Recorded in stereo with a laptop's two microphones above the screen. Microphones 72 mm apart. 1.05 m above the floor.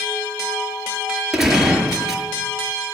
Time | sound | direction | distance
1.3 | a gunshot | 5° right (ahead or behind) | 5 m